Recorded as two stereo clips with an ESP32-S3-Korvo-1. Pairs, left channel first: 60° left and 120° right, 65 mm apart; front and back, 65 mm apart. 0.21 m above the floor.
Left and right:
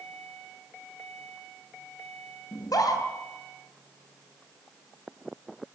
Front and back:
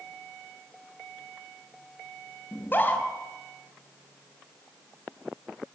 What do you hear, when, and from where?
2.5 s a scream: 60° left, 3.5 m